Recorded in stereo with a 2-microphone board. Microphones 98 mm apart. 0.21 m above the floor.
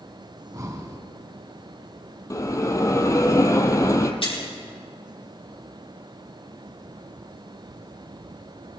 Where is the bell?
35° left (ahead or behind), 0.9 m.